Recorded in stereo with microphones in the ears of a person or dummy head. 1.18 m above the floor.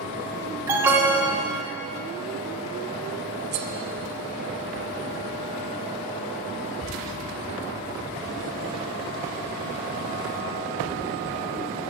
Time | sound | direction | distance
0.7 | an alarm | 10° right (ahead or behind) | 2.0 m
3.5 | cutlery clinking | 50° right (ahead or behind) | 1.2 m